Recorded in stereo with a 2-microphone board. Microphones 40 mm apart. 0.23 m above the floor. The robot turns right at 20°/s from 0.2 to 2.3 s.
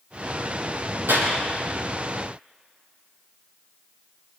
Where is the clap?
80° right, 7 m.